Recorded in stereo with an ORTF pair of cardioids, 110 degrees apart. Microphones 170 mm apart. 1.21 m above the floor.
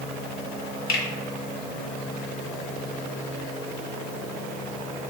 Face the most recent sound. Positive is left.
turn(degrees=60)